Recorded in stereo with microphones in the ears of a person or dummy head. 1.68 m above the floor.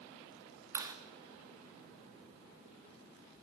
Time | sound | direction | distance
0.8 | a clap | 25° right (ahead or behind) | 3.5 m